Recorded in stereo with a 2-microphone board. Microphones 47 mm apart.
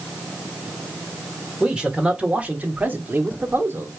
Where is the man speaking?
10° right (ahead or behind), 1.5 m; by 3.9 s 55° right (ahead or behind), 1.3 m.